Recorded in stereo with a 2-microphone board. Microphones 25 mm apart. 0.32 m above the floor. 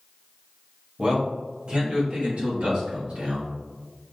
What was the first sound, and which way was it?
A man speaking, 30° right (ahead or behind).